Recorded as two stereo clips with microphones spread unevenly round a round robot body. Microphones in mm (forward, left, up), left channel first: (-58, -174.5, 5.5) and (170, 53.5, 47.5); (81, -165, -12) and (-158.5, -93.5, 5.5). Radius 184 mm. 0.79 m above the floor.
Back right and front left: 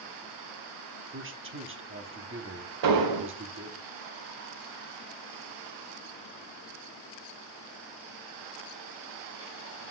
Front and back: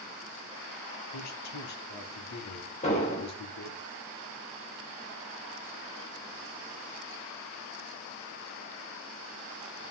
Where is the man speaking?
10° right, 1.4 m.